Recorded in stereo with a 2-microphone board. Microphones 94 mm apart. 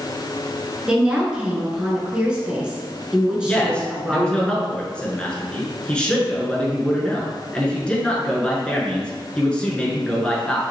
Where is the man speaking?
10° left (ahead or behind), 1.1 m.